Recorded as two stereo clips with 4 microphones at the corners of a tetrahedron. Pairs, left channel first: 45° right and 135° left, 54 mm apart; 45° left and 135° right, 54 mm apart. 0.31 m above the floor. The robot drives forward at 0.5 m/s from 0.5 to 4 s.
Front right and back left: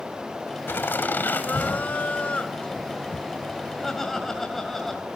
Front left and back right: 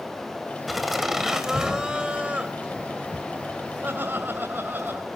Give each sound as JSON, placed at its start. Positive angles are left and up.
{"t": 0.7, "sound": "laughter", "azimuth_deg": -50, "distance_m": 2.0}